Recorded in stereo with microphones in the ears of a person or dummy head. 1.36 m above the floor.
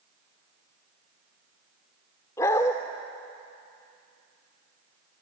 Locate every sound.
2.4 s a dog barking: 15° left (ahead or behind), 1.7 m